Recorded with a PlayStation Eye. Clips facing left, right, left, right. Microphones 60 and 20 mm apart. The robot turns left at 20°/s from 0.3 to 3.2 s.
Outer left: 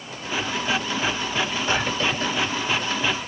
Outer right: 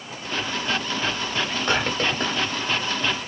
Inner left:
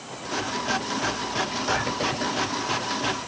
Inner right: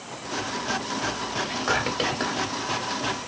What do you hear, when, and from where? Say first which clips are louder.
1.4 s whispering: even, inner right 1 dB; 55° right (ahead or behind), 1.7 m; by 2.4 s 60° right (ahead or behind), 1.7 m